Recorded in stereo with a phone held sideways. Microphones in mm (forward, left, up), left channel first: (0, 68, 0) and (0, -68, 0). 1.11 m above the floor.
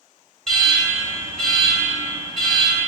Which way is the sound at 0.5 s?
5° left (ahead or behind).